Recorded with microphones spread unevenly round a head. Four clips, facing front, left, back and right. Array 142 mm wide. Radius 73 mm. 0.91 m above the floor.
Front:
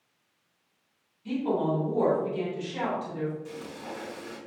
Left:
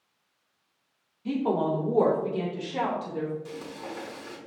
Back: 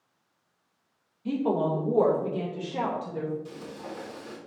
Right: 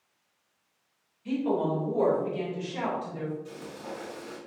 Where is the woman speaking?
130° left, 1.9 m; by 3.3 s 125° left, 3.5 m.